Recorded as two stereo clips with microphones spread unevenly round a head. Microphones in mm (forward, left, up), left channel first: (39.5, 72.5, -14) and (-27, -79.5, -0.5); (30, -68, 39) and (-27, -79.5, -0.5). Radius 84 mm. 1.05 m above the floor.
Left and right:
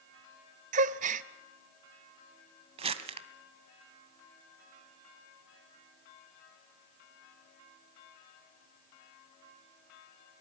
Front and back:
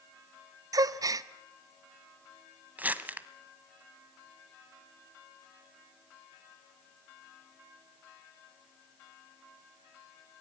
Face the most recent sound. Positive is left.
turn(degrees=-80)